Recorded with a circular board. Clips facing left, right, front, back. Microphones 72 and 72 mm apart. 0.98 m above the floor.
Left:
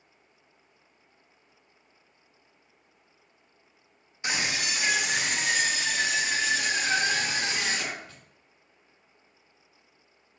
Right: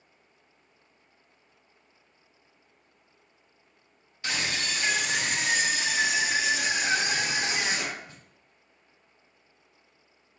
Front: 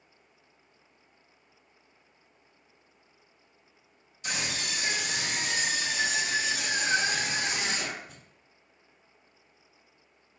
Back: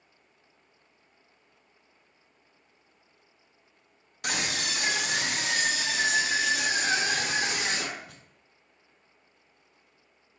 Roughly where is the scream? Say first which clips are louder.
Left 1 dB, back 3 dB; behind.